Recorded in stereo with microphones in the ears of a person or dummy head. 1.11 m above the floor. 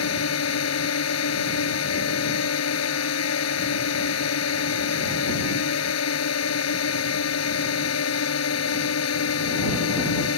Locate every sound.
0.0 s a drone: 80° left